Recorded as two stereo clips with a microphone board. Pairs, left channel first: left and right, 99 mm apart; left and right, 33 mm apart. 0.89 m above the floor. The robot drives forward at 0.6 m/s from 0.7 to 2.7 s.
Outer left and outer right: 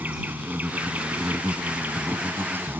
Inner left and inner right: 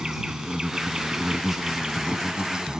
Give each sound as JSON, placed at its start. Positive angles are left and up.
{"t": 0.0, "sound": "an insect", "side_deg": -15}